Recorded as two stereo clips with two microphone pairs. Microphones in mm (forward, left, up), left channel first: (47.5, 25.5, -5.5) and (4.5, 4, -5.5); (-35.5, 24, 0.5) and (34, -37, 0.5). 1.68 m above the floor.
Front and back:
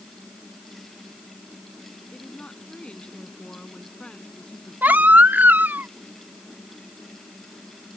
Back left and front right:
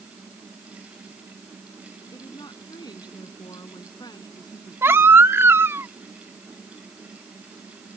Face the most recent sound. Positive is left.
turn(degrees=-105)